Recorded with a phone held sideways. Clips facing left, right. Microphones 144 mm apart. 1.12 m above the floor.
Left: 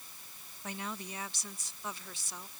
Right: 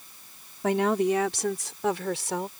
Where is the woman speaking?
80° right; by 2.5 s 70° right (ahead or behind).